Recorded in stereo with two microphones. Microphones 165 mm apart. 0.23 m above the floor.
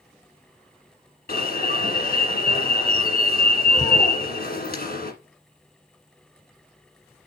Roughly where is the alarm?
Left.